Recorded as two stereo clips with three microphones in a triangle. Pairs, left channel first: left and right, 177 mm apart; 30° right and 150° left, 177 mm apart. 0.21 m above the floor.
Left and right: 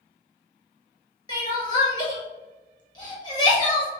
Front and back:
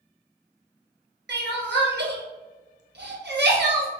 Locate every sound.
1.3 s crying: 155° left, 1.1 m